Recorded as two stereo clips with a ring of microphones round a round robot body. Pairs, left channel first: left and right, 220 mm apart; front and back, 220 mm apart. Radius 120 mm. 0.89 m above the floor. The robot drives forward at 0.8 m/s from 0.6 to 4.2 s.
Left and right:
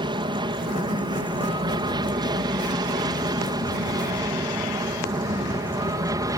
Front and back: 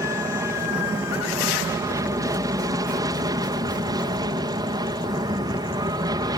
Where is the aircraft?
125° right; by 6.4 s 140° right.